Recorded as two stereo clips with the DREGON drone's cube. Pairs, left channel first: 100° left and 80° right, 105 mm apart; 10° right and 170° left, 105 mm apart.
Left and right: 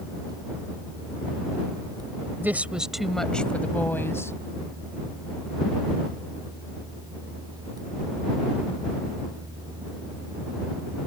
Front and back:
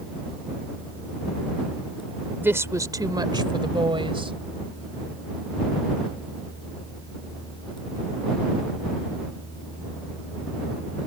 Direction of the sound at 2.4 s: 135° right.